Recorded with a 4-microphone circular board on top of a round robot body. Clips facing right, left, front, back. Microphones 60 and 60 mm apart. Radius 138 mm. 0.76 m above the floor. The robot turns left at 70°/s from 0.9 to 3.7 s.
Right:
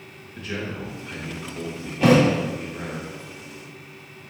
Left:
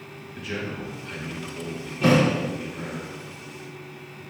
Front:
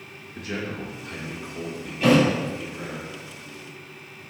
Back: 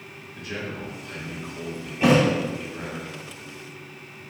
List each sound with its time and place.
0.3 s a man speaking: 5° left, 3 m; by 3.0 s 145° right, 3 m
2.0 s a thud: 105° right, 2.5 m; by 2.2 s 125° right, 2.5 m